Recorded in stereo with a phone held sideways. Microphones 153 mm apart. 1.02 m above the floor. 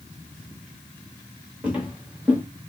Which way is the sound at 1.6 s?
10° right (ahead or behind).